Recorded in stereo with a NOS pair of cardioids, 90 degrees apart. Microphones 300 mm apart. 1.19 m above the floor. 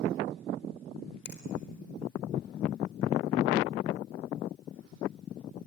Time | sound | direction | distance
1.2 | a finger snap | 35° left | 4 m